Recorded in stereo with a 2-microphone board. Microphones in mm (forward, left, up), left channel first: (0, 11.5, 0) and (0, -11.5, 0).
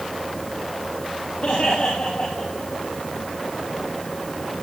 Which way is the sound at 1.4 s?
50° left (ahead or behind).